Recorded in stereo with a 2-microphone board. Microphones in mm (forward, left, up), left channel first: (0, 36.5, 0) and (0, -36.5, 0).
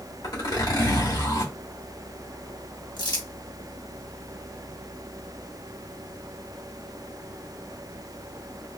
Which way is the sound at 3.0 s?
75° left (ahead or behind).